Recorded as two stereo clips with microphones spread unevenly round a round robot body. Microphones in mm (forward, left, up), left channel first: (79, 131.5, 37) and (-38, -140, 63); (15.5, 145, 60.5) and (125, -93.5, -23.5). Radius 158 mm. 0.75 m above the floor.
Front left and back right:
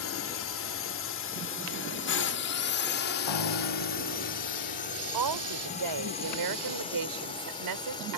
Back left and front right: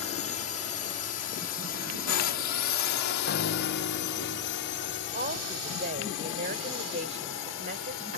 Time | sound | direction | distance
0.0 | a drone | 80° left | ?
3.3 | a piano | 70° left | ?
5.1 | a woman speaking | 130° right | ?